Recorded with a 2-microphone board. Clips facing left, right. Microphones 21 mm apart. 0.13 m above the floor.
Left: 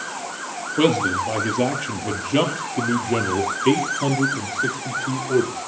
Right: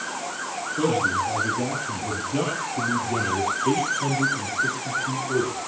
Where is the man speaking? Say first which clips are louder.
Left 4 dB; 65° left (ahead or behind), 3.5 m; by 5.5 s 40° left (ahead or behind), 4.5 m.